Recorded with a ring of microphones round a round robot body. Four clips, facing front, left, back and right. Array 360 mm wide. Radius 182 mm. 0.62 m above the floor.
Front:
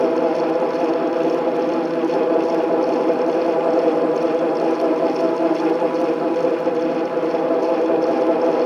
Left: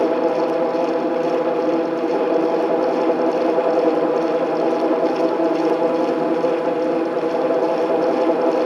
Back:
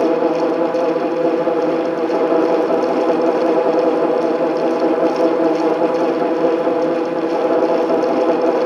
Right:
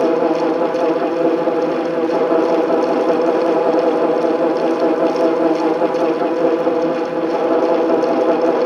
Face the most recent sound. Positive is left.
No sound to turn to.